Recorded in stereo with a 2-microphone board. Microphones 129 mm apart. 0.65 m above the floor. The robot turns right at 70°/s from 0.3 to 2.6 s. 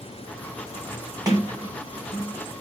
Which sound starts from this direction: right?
A sliding door, at 1.2 s.